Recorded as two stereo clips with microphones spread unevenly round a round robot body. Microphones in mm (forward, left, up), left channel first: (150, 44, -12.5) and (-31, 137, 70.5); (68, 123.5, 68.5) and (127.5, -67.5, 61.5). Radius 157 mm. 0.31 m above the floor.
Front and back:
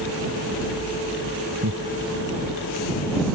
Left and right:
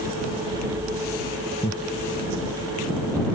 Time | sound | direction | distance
1.6 | laughter | straight behind | ?